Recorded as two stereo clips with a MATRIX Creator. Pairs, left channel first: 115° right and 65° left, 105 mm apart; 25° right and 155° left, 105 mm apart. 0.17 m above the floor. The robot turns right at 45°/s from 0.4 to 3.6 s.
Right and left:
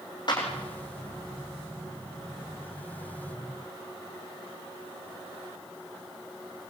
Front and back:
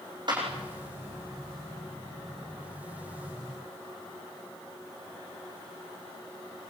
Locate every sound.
0.3 s a clap: 160° right, 8 m; by 0.5 s 155° right, 8 m